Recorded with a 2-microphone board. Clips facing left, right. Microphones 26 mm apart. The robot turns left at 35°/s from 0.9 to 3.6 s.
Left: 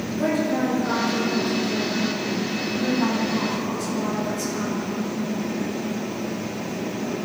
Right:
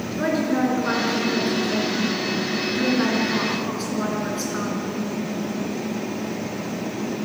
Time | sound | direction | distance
0.2 | a woman speaking | 35° right | 3 m